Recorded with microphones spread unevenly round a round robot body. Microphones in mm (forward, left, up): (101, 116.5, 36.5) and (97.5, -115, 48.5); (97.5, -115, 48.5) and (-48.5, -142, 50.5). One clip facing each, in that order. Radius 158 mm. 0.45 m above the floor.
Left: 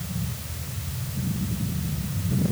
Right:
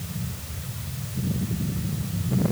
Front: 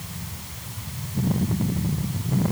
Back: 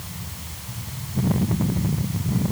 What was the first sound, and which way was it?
Only background noise.